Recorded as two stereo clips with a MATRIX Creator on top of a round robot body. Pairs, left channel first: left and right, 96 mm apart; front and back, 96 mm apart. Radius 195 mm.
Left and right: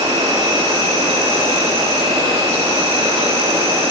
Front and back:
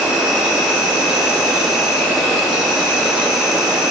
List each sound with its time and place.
0.0 s an insect: 95° right, 2.5 m